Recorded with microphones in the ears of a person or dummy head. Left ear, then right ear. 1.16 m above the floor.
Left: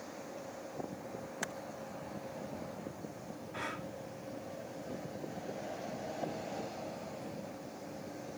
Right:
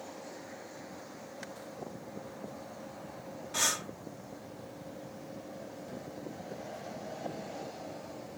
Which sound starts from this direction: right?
Breathing, at 3.5 s.